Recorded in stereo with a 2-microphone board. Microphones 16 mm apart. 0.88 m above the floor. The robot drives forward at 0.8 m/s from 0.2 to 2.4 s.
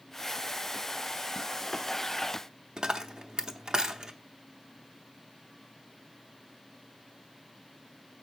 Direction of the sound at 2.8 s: 60° right (ahead or behind).